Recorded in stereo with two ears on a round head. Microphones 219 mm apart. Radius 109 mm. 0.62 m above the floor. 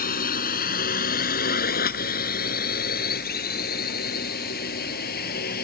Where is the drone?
40° left (ahead or behind); by 5.6 s 45° left (ahead or behind).